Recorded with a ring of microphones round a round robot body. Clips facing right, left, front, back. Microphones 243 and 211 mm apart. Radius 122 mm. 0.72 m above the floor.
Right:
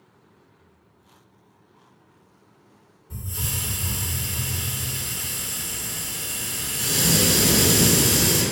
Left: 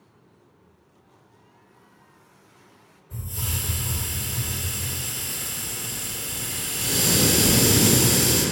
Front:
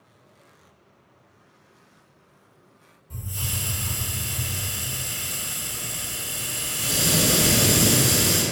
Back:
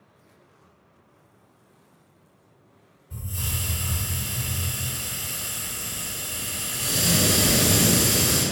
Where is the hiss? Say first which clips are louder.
Even, even; 35° right, 1.5 m.